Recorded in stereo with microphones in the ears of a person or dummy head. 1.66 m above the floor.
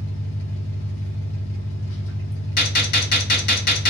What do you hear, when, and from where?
0.0 s an engine running: 75° left (ahead or behind), 0.9 m
2.6 s a gunshot: 50° left (ahead or behind), 0.7 m